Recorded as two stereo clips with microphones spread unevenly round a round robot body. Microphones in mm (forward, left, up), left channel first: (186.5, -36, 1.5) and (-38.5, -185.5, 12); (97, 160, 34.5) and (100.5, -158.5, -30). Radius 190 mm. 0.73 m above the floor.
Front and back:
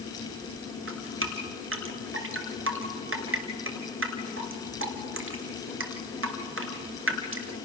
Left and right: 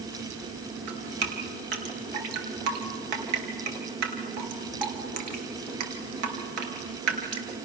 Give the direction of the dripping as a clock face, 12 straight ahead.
3 o'clock.